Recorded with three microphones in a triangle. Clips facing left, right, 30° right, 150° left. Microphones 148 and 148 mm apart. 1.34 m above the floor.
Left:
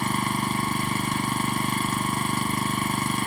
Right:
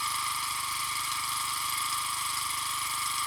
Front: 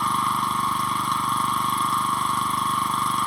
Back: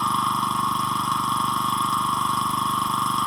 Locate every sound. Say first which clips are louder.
0.0 s an engine running: left 11 dB, even; 60° left